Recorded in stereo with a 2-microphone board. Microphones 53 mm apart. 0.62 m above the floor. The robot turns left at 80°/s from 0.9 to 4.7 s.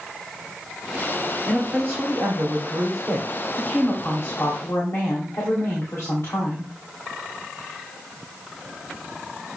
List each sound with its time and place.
1.5 s a woman speaking: 15° right, 2.5 m; by 6.7 s 85° left, 2.5 m